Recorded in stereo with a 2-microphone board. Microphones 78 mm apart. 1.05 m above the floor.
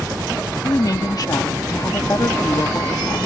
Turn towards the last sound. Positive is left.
turn(degrees=55)  # may be behind; listen again after turning